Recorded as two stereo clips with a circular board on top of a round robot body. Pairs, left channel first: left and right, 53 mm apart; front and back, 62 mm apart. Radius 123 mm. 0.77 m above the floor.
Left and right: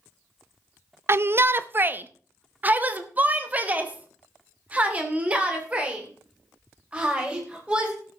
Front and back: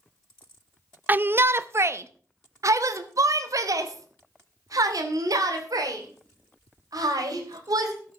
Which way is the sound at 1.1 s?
125° right.